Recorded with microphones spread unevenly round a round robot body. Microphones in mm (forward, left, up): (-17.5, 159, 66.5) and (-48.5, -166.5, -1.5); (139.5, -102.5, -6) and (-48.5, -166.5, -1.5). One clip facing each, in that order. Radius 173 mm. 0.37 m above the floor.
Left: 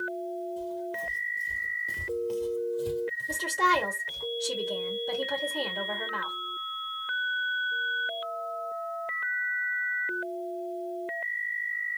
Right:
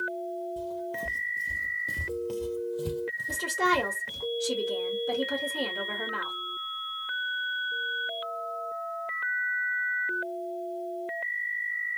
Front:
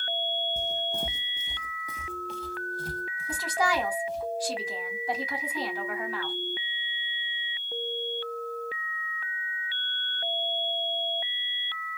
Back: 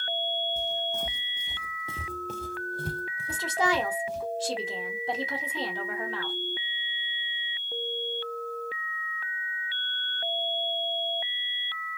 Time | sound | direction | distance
0.6 | footsteps | 25° right | 0.7 m
3.3 | a woman speaking | 135° right | 1.4 m